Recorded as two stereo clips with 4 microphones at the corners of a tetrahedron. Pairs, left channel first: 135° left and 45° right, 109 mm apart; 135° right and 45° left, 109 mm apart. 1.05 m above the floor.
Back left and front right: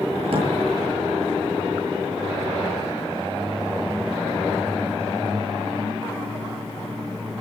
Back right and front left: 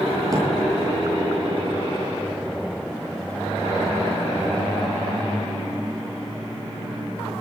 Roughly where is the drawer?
Ahead.